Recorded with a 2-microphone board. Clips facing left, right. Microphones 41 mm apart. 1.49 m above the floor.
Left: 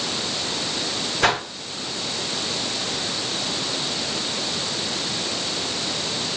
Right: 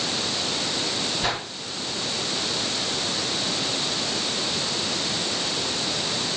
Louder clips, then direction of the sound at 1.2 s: Left 10 dB; 60° left (ahead or behind).